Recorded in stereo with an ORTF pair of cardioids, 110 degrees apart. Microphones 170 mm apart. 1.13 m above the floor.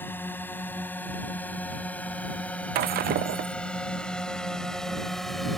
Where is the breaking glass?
70° right.